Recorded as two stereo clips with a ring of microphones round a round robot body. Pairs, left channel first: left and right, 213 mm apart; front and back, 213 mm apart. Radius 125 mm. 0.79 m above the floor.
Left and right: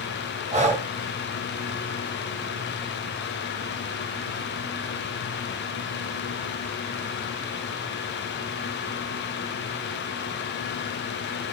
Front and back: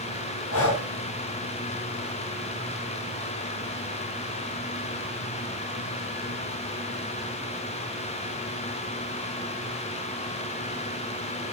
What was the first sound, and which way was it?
Breathing, 30° right.